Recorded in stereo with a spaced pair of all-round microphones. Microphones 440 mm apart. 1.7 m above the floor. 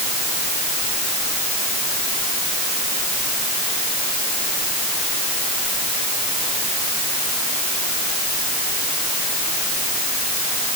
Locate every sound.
Only background noise.